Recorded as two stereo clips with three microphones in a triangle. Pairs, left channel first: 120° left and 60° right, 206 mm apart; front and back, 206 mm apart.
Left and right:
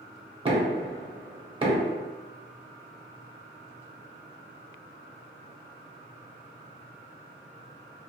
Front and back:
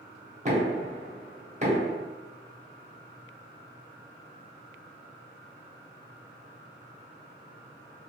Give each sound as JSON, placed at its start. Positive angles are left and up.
{"t": 0.5, "sound": "knocking", "azimuth_deg": -125, "distance_m": 0.6}